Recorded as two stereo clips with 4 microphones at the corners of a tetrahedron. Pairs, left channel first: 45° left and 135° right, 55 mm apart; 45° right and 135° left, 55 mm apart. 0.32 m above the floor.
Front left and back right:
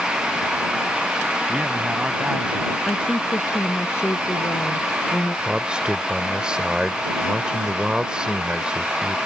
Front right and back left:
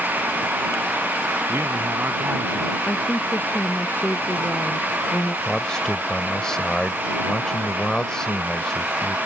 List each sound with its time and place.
1.5 s a man speaking: 160° left
2.9 s a woman speaking: 5° left
5.5 s a man speaking: 95° right